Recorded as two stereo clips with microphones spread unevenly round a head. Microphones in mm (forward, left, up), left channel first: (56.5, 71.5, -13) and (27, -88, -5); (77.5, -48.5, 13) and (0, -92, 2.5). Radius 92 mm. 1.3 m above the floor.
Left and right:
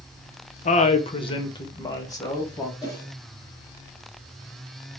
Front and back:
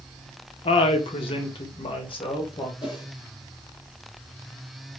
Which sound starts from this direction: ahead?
A whoosh, at 2.8 s.